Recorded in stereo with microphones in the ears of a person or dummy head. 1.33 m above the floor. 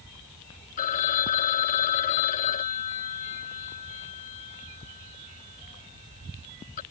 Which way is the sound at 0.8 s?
40° left (ahead or behind).